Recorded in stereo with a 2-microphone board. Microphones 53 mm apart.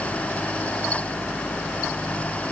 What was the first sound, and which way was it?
Only background noise.